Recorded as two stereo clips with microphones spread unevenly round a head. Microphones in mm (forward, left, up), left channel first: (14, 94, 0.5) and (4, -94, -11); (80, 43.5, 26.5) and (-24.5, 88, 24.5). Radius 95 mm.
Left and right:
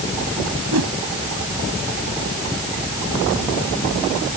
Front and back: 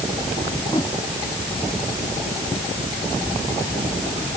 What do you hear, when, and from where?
0.7 s a whoosh: 90° right